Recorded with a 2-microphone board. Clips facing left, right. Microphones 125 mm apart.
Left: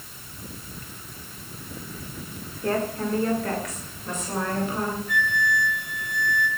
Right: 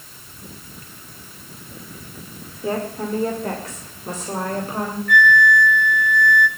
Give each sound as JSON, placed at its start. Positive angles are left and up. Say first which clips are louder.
{"t": 2.6, "sound": "a woman speaking", "louder": "right 1 dB", "side_deg": -10, "distance_m": 2.0}
{"t": 5.1, "sound": "a flute", "louder": "right 10 dB", "side_deg": -70, "distance_m": 1.2}